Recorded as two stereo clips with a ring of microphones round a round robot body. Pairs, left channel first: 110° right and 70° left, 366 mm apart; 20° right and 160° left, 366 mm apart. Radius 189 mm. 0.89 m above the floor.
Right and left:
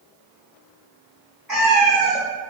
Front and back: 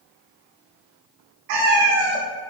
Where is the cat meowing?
155° left, 0.6 m.